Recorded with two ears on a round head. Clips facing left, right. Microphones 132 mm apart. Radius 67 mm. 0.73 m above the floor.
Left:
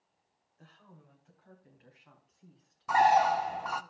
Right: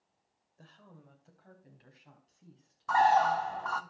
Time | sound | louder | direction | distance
0.6 | a woman speaking | right 2 dB | 45° right (ahead or behind) | 2.5 m
2.9 | a bird | left 1 dB | 15° left (ahead or behind) | 0.5 m